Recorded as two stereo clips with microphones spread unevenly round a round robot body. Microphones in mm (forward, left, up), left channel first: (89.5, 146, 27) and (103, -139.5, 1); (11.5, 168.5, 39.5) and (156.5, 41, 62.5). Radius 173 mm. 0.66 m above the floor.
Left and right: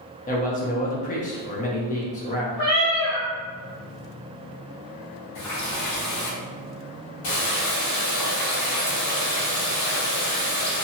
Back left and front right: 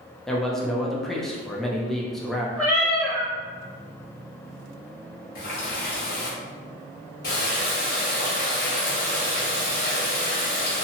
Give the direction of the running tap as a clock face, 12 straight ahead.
8 o'clock.